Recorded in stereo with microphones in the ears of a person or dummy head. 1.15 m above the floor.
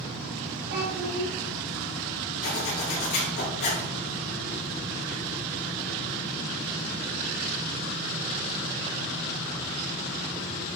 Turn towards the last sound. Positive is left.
turn(degrees=60)  # may be behind; listen again after turning